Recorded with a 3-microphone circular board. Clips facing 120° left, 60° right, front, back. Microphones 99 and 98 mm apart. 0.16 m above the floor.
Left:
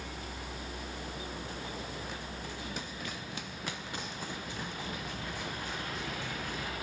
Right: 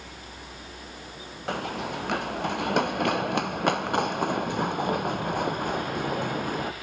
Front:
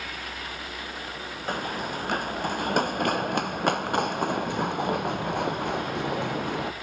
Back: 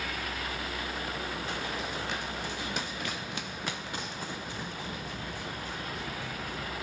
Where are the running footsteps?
40° right; by 6.7 s 25° right.